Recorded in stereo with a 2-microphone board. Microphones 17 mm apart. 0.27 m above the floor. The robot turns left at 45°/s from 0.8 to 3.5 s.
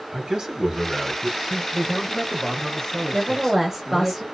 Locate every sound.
0.1 s a man speaking: 90° right, 1.8 m; by 1.6 s 125° right, 1.8 m
1.7 s a man speaking: 10° left (ahead or behind), 0.9 m; by 4.1 s 20° left (ahead or behind), 0.9 m
3.1 s a woman speaking: 20° right (ahead or behind), 1.2 m; by 4.2 s 15° right (ahead or behind), 1.2 m